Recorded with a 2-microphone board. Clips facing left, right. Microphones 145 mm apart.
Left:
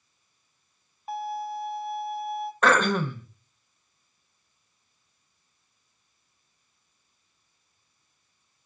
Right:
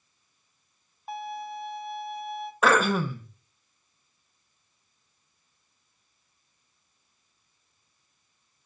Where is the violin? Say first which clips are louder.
Left 4 dB; centre (ahead or behind), 0.7 m.